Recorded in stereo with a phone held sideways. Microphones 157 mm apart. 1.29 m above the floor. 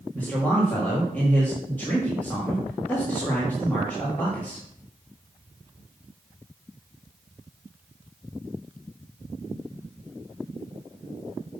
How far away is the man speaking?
About 2.0 m.